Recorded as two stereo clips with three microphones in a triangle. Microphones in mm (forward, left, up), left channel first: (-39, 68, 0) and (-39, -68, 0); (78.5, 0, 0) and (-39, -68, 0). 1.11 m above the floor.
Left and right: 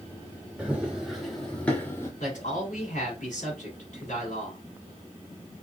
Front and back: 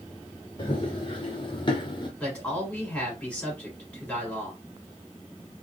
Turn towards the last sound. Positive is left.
turn(degrees=110)